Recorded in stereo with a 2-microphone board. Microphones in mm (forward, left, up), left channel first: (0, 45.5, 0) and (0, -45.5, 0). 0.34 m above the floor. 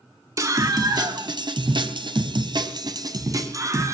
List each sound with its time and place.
0.4 s a scream: 40° right (ahead or behind), 3.5 m; by 3.9 s 35° right (ahead or behind), 3.5 m